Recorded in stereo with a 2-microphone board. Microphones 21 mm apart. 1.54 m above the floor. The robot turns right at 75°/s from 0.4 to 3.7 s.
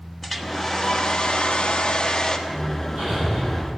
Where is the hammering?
110° right, 8 m; by 3.7 s 20° right, 8 m.